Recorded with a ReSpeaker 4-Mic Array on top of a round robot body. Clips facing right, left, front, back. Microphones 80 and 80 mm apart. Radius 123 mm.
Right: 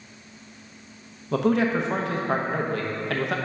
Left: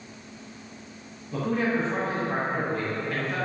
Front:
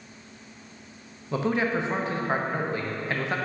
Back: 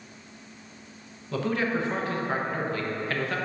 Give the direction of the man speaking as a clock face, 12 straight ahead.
2 o'clock.